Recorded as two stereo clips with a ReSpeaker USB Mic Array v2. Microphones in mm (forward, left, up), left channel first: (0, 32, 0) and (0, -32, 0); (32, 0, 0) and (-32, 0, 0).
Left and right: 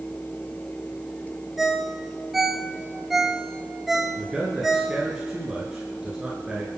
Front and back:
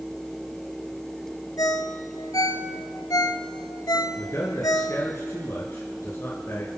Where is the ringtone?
5° right, 0.9 m.